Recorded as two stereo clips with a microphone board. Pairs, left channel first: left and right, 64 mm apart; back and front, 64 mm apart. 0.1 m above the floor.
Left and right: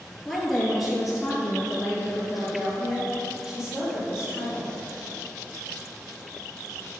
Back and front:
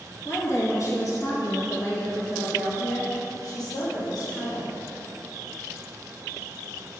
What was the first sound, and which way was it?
A woman speaking, 170° left.